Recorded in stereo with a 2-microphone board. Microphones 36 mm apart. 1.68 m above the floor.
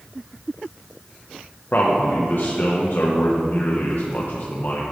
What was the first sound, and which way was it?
A man speaking, 55° left (ahead or behind).